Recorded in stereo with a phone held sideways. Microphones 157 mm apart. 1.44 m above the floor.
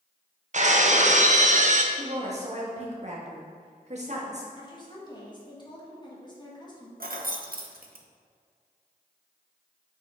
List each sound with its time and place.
0.5 s breaking glass: 50° right (ahead or behind), 0.7 m
1.9 s a woman speaking: 50° right (ahead or behind), 1.8 m
4.6 s a woman speaking: 30° left (ahead or behind), 1.7 m
7.0 s keys jangling: 70° right (ahead or behind), 0.8 m